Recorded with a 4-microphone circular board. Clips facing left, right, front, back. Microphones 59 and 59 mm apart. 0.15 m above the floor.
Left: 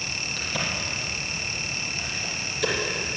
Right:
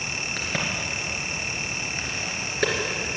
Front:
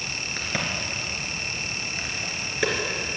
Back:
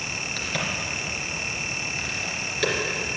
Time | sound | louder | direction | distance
0.4 | a crack | right 1 dB, front 1 dB | 65° right | 2.5 m